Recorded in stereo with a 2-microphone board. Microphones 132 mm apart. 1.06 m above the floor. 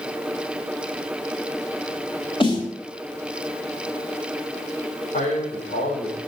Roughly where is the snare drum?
Left.